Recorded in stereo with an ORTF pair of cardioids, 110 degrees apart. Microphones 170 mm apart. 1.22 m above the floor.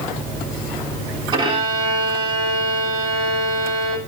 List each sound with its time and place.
1.3 s a violin: 30° right, 3.5 m